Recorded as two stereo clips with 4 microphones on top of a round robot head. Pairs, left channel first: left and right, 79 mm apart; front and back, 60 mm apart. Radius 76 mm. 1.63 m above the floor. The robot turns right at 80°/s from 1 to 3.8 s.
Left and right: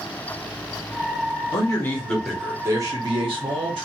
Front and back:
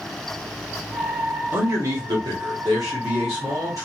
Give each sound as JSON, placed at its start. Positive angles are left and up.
{"t": 1.5, "sound": "a man speaking", "azimuth_deg": 125, "distance_m": 0.9}